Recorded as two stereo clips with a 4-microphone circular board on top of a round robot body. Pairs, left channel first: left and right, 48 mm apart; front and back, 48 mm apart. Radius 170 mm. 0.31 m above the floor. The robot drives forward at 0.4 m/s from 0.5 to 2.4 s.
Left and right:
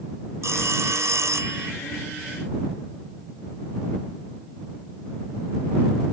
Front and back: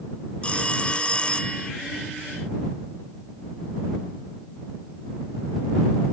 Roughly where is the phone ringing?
Ahead right.